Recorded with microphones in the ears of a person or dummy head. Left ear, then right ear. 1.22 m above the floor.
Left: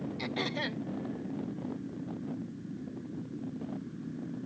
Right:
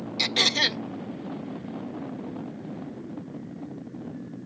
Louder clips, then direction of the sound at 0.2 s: Right 14 dB; 70° right (ahead or behind).